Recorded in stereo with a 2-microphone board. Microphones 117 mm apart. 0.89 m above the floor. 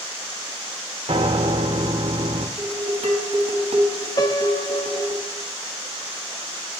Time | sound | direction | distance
1.1 | a piano | 75° right (ahead or behind) | 1.8 m
2.6 | dishes clattering | 75° right (ahead or behind) | 4 m
4.2 | a piano | 35° left (ahead or behind) | 1.0 m